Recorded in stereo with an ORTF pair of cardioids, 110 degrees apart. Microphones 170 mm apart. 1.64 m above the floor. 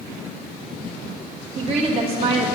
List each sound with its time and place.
1.6 s a woman speaking: 40° right, 2.5 m